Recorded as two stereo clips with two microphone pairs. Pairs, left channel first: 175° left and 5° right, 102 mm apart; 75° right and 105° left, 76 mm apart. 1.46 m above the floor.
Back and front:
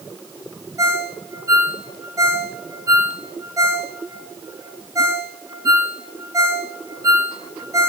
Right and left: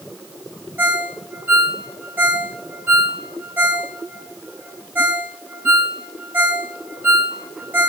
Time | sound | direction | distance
0.8 | a ringtone | 45° left | 1.4 m